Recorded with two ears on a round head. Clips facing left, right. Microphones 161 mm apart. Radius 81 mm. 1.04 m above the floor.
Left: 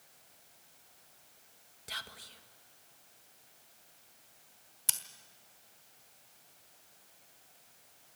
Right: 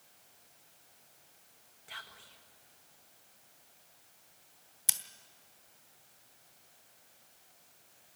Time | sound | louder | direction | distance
1.9 | whispering | left 4 dB | 50° left (ahead or behind) | 1.6 m
4.9 | scissors | even | 10° right (ahead or behind) | 1.1 m